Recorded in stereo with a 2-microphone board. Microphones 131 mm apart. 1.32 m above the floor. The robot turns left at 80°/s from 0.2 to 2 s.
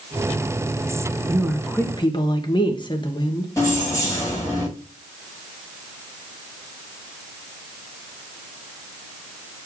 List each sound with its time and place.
1.3 s a woman speaking: 155° right, 1.6 m; by 3.5 s 145° left, 1.6 m
3.6 s keys jangling: 20° left (ahead or behind), 5 m